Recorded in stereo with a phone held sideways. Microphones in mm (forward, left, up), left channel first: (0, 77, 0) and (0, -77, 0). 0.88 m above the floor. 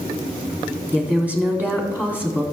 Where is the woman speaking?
10° right (ahead or behind), 2 m.